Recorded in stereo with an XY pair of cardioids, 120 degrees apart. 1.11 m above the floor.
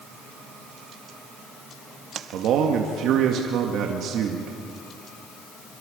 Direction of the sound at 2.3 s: 70° right.